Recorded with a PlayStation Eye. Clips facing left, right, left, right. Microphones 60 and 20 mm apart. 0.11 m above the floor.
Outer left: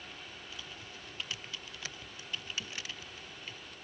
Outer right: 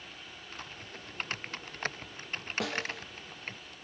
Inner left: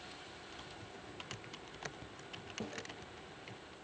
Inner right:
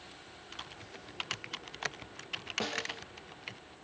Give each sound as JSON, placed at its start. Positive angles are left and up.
{"t": 0.5, "sound": "typing on a keyboard", "side_deg": -45}
{"t": 2.6, "sound": "a snare drum", "side_deg": -85}